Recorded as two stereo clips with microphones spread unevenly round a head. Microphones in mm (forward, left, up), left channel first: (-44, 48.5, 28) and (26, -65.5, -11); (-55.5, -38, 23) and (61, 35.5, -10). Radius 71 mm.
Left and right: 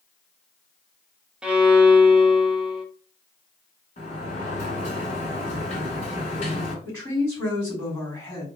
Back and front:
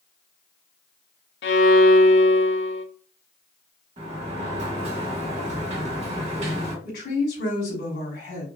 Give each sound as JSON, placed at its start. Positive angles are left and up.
{"t": 1.4, "sound": "a violin", "azimuth_deg": -145, "distance_m": 0.5}
{"t": 4.0, "sound": "a sliding door", "azimuth_deg": 75, "distance_m": 1.8}
{"t": 6.8, "sound": "a woman speaking", "azimuth_deg": -160, "distance_m": 2.5}